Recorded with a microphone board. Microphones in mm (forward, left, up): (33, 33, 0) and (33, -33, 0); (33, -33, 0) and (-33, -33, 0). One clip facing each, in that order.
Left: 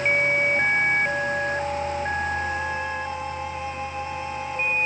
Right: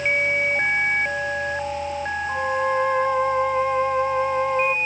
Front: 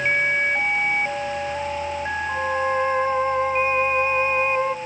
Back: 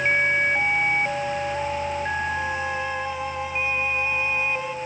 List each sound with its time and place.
2.3 s a violin: 50° right